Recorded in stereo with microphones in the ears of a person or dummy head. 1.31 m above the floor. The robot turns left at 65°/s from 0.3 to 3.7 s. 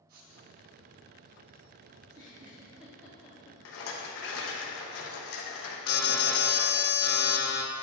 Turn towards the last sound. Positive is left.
turn(degrees=65)  # may be behind; listen again after turning